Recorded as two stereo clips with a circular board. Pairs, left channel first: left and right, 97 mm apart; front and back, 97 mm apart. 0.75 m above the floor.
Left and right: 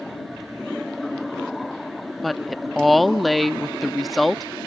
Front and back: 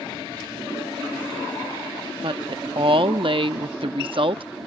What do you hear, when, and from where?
2.2 s a woman speaking: straight behind